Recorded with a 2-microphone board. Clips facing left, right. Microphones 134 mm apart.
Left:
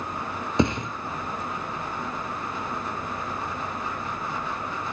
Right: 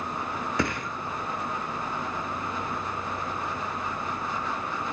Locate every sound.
0.6 s a thud: 25° left (ahead or behind), 1.1 m